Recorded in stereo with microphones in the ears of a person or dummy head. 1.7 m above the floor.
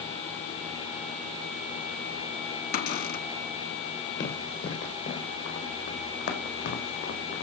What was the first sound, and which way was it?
A cupboard door, 55° left (ahead or behind).